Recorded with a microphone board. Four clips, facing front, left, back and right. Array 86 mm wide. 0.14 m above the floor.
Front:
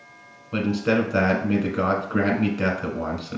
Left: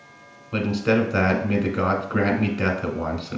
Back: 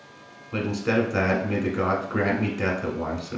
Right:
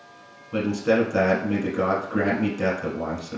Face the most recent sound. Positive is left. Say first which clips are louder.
# even, front 2 dB
turn(degrees=65)